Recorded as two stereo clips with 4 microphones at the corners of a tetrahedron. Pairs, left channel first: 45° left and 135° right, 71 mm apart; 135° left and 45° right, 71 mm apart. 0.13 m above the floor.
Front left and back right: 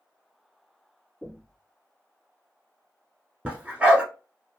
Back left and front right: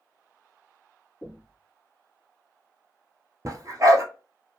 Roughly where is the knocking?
Behind left.